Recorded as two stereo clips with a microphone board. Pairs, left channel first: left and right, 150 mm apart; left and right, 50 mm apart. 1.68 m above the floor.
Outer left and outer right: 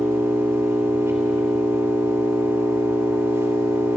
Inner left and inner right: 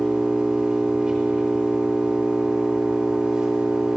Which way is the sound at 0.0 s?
20° right (ahead or behind).